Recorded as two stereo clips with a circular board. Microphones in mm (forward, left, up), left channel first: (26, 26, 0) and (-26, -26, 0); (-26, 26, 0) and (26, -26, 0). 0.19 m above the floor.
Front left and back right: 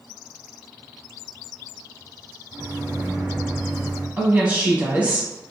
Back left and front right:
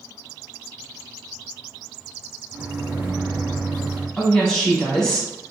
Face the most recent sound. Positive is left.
turn(degrees=-155)